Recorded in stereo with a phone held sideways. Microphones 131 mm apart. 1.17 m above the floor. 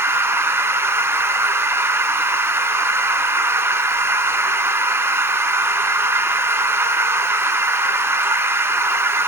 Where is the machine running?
20° right (ahead or behind), 0.8 m.